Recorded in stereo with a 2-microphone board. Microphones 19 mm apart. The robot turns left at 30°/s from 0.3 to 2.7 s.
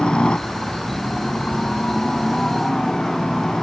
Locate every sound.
0.0 s a helicopter: 105° left; by 3.6 s 35° left